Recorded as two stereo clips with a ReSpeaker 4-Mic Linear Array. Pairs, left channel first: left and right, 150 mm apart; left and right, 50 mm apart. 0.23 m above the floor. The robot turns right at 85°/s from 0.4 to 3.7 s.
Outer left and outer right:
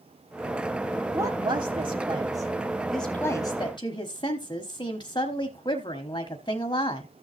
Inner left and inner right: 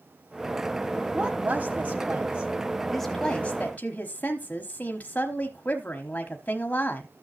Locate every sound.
1.1 s a woman speaking: 150° right, 1.1 m; by 7.1 s 70° left, 1.1 m